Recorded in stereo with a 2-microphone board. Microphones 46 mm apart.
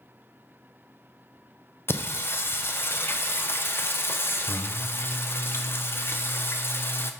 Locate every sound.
1.9 s singing: 60° left (ahead or behind), 0.6 m